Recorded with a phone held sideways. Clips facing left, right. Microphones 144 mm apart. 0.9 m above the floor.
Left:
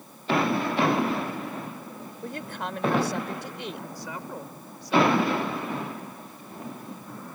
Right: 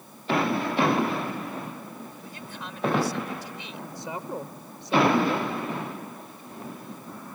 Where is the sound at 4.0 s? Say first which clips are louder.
Right 3 dB; 25° right (ahead or behind).